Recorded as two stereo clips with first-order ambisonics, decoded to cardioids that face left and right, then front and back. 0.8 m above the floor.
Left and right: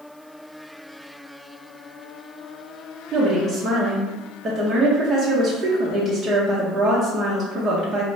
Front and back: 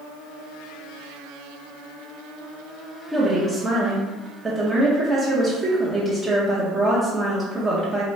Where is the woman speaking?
125° right, 0.8 m.